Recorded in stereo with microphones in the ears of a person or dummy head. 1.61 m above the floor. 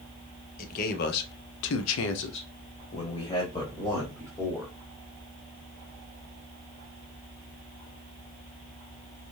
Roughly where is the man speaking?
Left.